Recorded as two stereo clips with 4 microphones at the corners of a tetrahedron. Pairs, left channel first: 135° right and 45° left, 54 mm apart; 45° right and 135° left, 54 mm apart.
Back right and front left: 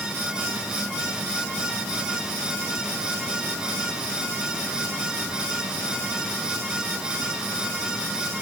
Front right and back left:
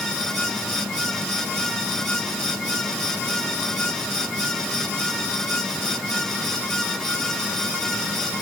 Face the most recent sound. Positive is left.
No sound to turn to.